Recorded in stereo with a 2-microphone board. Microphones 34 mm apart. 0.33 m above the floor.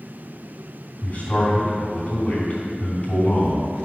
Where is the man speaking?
40° left (ahead or behind), 2.5 m.